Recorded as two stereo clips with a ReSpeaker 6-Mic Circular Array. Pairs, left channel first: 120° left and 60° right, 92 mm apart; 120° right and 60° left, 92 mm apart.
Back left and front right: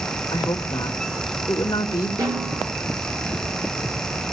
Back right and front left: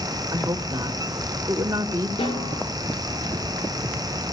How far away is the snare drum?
About 8.5 m.